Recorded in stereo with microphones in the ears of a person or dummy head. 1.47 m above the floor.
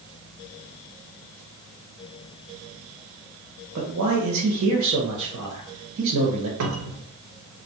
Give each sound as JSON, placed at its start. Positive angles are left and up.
{"t": 3.8, "sound": "a man speaking", "side_deg": -80, "distance_m": 0.7}
{"t": 6.6, "sound": "a cupboard door", "side_deg": -75, "distance_m": 0.5}